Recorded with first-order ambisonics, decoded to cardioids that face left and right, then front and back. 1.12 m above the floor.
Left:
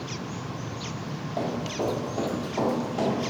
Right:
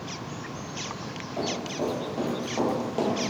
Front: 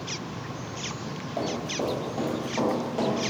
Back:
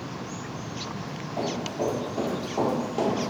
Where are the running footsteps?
20° left, 1.2 m; by 3.3 s 110° right, 1.2 m.